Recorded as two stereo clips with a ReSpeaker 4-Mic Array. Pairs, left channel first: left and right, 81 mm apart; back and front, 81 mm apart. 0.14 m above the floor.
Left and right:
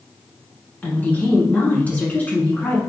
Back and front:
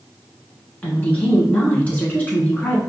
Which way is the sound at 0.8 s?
135° left.